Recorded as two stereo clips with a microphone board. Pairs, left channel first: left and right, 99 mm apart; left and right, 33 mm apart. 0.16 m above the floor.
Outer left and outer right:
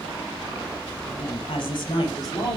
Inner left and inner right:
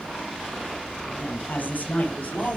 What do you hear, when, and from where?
1.2 s a woman speaking: 60° left (ahead or behind), 3.5 m; by 2.6 s 35° left (ahead or behind), 2.5 m